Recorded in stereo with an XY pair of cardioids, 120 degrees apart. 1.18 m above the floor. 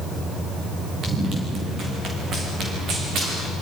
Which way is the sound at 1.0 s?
45° right.